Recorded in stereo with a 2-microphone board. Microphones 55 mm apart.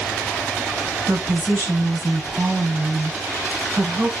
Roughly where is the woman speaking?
Right.